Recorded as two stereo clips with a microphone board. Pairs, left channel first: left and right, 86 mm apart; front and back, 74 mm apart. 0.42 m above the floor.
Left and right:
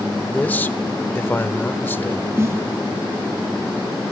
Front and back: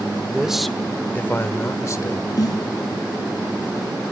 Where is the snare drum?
30° right, 1.1 m.